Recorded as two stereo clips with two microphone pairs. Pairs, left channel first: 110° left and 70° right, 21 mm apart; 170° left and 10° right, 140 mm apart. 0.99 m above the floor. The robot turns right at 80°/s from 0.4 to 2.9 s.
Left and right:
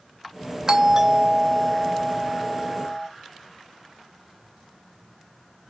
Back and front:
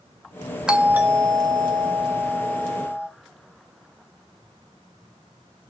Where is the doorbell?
75° right, 0.7 m; by 3.1 s 100° left, 0.7 m.